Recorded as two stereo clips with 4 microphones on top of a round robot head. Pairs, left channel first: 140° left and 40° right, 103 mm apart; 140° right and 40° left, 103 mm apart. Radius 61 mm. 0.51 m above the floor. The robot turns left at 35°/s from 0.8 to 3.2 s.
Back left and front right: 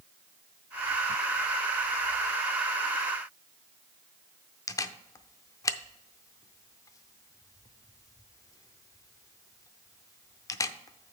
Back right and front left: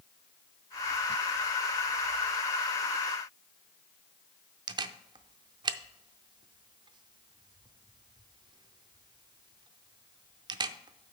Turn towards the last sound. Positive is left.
turn(degrees=85)